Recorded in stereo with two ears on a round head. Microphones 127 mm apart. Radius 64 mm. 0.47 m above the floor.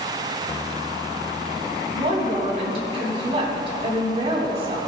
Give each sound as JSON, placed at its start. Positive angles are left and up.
{"t": 1.9, "sound": "a woman speaking", "side_deg": -45, "distance_m": 3.5}